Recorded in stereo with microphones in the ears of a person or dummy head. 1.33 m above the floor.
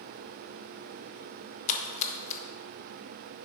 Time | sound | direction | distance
1.7 | a splash | 40° left (ahead or behind) | 1.1 m